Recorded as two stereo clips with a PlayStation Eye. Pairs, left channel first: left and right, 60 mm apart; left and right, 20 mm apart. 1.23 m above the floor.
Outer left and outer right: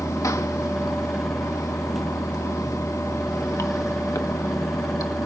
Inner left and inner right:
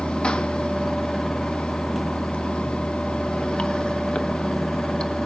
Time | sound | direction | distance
0.0 | running water | 70° left (ahead or behind) | 1.3 m